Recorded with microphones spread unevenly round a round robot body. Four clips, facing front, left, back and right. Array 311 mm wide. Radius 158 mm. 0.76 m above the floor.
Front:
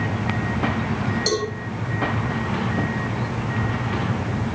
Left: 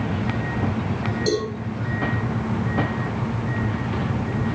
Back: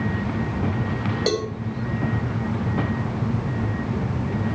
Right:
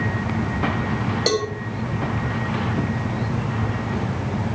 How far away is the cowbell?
About 3.5 m.